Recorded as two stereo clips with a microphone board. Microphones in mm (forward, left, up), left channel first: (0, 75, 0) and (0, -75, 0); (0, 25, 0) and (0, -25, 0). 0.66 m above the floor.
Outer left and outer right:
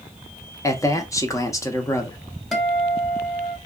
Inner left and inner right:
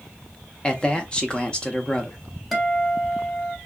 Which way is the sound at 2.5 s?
Centre (ahead or behind).